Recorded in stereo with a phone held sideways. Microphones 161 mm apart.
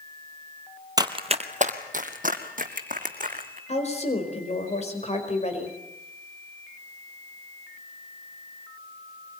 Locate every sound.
1.0 s running footsteps: 25° right (ahead or behind), 1.3 m; by 3.6 s 55° right (ahead or behind), 4 m
3.7 s a woman speaking: 45° left (ahead or behind), 4.5 m